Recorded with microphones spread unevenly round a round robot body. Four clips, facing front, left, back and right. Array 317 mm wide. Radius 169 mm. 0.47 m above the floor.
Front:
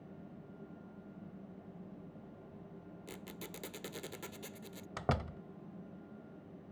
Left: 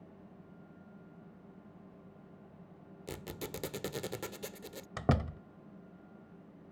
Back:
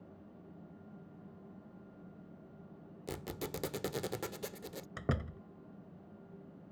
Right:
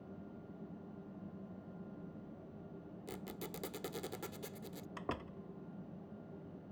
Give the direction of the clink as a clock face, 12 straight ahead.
No clink in this recording.